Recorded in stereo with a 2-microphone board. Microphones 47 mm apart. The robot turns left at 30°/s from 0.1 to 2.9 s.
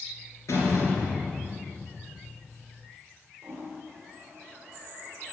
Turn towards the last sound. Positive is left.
turn(degrees=-45)  # may be behind; listen again after turning